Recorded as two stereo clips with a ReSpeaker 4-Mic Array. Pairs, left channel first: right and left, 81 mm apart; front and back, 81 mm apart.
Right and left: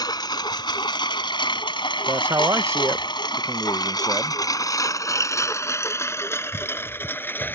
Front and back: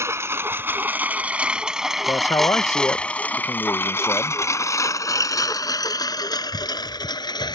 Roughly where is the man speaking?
Ahead left.